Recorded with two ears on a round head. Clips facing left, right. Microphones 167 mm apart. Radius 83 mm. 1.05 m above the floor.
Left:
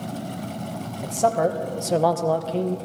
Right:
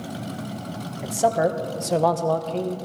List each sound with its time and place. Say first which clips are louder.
1.0 s a man speaking: even; 5° right (ahead or behind), 0.9 m; by 2.8 s 10° left (ahead or behind), 0.6 m